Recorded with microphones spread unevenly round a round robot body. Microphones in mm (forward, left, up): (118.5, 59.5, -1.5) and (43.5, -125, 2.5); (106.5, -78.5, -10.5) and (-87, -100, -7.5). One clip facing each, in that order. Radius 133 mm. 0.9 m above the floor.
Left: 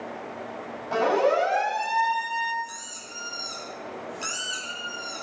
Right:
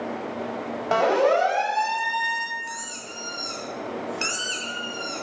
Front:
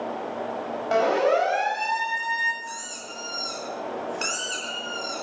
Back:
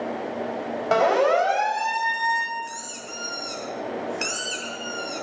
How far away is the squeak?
About 9.5 m.